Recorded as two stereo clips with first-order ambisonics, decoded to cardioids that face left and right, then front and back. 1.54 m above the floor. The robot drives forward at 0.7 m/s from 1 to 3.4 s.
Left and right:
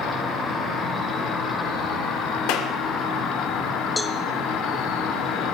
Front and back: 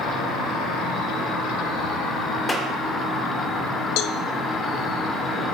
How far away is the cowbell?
About 0.9 m.